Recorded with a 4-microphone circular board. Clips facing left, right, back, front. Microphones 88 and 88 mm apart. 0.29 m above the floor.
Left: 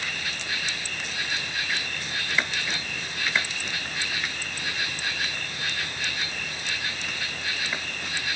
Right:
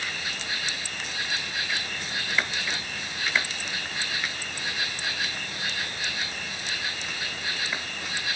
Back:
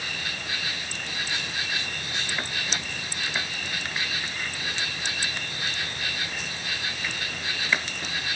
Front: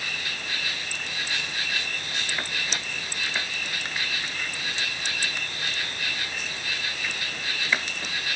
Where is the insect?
160° right, 1.8 m.